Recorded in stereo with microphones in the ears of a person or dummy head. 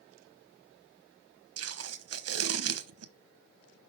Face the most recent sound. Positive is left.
turn(degrees=-70)  # may be behind; listen again after turning